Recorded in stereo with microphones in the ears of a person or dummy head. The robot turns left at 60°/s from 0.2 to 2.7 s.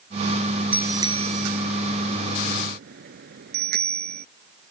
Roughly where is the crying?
No crying in this recording.